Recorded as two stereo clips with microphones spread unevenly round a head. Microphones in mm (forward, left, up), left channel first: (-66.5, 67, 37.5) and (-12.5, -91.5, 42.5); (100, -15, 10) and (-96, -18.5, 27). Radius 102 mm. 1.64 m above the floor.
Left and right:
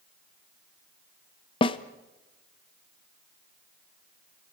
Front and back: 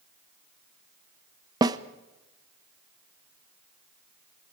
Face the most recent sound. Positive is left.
turn(degrees=140)